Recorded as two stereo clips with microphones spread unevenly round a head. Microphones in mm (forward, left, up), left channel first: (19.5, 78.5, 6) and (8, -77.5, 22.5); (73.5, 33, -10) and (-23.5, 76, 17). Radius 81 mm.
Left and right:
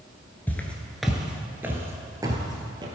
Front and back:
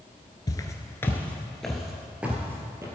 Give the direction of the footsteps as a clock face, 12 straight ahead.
12 o'clock.